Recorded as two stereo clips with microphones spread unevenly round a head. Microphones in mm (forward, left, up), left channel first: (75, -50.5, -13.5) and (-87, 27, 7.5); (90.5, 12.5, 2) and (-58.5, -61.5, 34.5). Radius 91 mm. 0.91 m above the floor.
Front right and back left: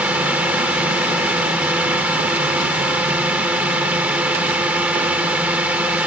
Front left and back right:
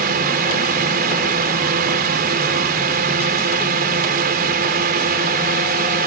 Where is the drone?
125° right.